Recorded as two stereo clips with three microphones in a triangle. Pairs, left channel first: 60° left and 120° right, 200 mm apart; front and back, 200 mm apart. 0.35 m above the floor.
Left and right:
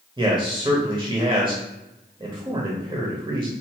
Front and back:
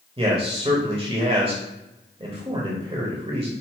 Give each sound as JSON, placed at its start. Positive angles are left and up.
{"t": 0.2, "sound": "a man speaking", "azimuth_deg": -160, "distance_m": 1.1}